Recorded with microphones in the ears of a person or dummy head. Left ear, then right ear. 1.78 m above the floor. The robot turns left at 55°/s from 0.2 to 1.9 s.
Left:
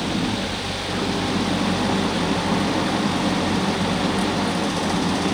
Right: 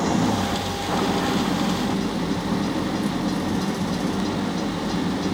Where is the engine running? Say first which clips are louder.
Right 2 dB; 115° right; by 5.3 s 150° left.